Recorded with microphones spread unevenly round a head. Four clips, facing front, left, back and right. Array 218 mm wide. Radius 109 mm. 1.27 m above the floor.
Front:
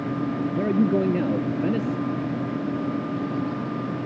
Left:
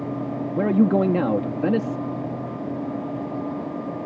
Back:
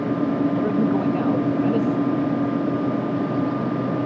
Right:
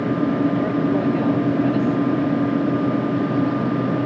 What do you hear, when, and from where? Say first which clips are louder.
0.6 s a man speaking: left 1 dB, back 1 dB; 70° left